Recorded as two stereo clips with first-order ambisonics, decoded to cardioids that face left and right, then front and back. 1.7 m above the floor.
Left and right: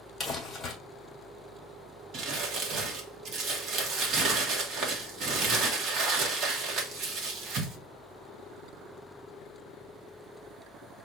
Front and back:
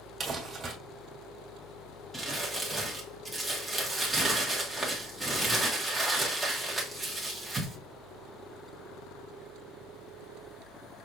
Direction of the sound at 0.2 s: 150° left.